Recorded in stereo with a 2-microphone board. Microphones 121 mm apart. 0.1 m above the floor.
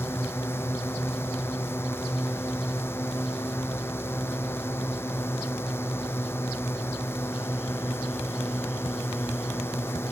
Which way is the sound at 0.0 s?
20° left (ahead or behind).